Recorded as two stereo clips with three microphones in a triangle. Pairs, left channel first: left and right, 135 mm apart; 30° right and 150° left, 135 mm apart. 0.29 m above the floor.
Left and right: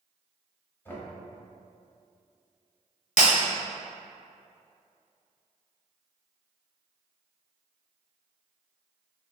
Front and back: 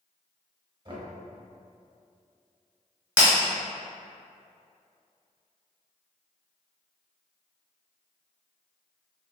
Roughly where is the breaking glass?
Left.